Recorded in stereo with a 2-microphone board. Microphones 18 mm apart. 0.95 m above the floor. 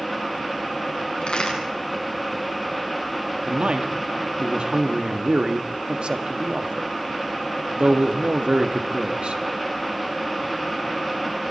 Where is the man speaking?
75° right (ahead or behind), 1.6 m.